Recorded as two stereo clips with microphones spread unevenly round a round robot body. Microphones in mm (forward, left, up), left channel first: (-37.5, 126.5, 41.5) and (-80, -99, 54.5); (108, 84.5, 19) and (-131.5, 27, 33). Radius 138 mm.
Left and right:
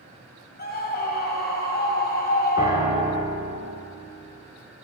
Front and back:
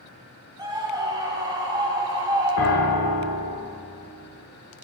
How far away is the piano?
About 1.0 m.